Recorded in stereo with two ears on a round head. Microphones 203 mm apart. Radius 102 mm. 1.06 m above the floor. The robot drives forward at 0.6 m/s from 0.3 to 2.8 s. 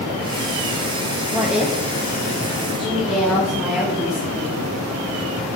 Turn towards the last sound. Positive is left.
turn(degrees=0)  # may be behind; listen again after turning